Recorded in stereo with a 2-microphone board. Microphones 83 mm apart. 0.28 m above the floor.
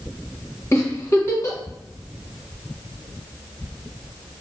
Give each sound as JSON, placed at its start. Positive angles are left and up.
{"t": 0.7, "sound": "a giggle", "side_deg": 35, "distance_m": 1.4}